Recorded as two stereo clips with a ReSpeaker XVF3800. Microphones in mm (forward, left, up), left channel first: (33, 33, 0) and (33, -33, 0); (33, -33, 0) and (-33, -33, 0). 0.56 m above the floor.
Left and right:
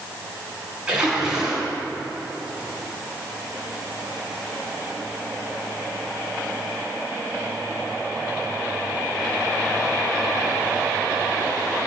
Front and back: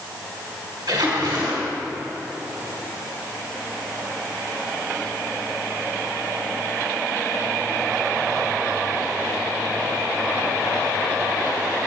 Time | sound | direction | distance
0.9 | a splash | 170° right | 5.5 m